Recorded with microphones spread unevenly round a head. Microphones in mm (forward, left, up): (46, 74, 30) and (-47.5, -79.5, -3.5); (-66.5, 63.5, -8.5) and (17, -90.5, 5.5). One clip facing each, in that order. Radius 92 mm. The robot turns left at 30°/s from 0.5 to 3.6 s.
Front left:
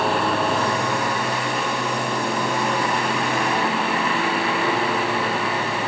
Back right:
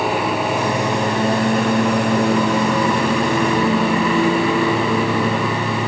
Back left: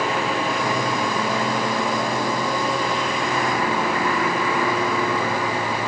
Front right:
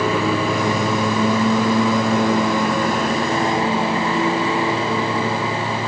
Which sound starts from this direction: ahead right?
A lawn mower, at 0.0 s.